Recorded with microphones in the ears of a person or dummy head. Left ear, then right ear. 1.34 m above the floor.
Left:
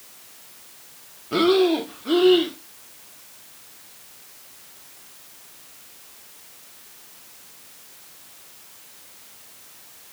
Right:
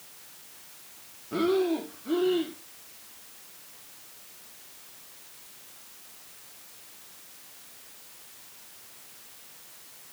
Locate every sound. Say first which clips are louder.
1.3 s breathing: left 8 dB; 35° left (ahead or behind), 0.8 m